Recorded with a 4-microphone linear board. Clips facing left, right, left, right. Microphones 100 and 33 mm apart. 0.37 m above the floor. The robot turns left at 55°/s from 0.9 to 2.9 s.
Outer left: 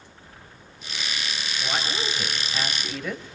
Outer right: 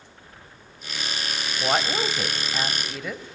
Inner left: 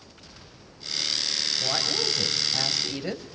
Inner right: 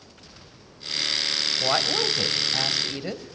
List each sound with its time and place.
1.6 s a woman speaking: 105° right, 2 m; by 3.2 s straight behind, 2 m